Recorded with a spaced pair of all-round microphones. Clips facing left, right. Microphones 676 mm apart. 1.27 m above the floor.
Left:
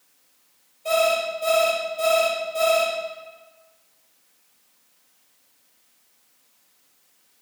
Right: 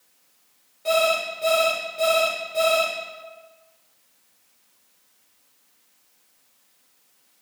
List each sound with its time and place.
0.8 s an alarm clock: 80° right, 3 m